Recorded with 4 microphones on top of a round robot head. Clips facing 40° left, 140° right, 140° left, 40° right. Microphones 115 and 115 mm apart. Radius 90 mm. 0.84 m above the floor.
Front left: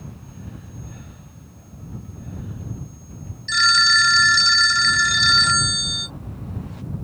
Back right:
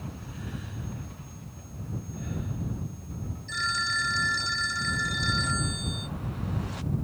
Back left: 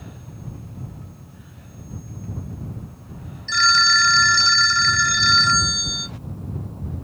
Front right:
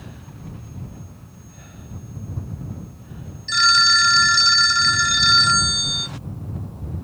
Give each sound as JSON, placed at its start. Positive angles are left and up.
{"t": 3.5, "sound": "a phone ringing", "azimuth_deg": 35}